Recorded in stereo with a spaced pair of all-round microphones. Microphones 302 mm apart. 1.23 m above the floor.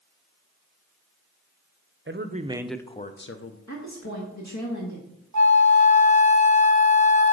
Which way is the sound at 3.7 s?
65° left (ahead or behind).